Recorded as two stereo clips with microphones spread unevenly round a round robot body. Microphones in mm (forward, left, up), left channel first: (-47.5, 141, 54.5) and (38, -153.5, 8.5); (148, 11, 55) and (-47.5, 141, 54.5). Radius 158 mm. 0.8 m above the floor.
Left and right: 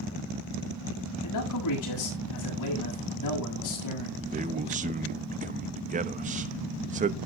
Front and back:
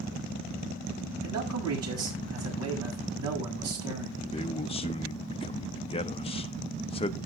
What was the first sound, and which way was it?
A man speaking, 140° left.